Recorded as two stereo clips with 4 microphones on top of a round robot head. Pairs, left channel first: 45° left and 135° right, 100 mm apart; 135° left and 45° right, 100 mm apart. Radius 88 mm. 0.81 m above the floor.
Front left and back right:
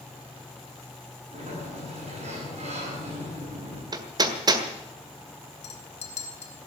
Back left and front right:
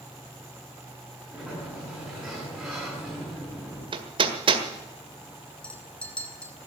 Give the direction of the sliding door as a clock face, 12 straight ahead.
4 o'clock.